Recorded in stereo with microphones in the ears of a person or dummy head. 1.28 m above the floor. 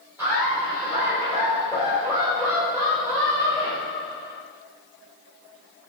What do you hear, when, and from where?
0.2 s laughter: 15° right (ahead or behind), 1.5 m